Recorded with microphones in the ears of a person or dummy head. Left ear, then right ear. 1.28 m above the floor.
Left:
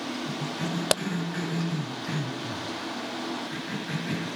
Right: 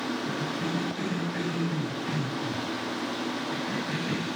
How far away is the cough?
About 3 m.